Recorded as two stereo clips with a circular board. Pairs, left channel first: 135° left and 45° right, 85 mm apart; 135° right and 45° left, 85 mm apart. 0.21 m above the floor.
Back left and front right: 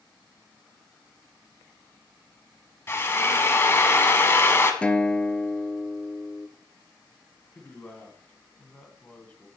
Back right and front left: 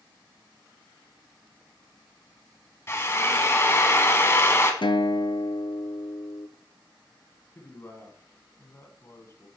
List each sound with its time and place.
2.9 s a drill: straight behind, 1.0 m
4.8 s a guitar: 150° right, 0.5 m
7.5 s a man speaking: 165° right, 1.6 m